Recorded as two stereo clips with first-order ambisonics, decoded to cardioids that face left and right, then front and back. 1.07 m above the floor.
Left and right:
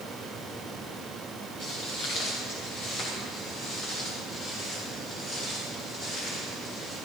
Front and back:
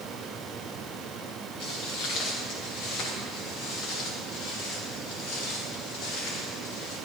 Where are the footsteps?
50° left, 6 m; by 7.0 s 35° left, 11.5 m.